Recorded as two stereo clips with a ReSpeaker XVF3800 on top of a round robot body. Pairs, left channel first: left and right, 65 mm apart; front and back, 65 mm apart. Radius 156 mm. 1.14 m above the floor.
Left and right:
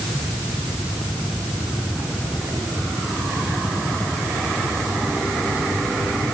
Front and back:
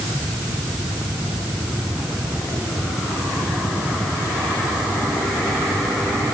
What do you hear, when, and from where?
Only background noise.